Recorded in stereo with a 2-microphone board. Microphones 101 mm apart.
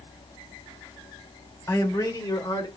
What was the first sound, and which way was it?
A man speaking, 30° left (ahead or behind).